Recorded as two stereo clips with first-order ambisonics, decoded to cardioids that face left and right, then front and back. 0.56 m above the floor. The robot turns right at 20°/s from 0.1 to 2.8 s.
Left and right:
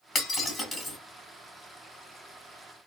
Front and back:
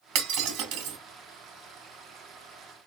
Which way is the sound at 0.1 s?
165° left.